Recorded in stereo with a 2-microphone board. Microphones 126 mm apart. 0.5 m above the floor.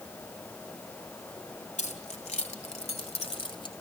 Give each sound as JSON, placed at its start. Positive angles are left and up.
{"t": 1.8, "sound": "keys jangling", "side_deg": 75, "distance_m": 2.5}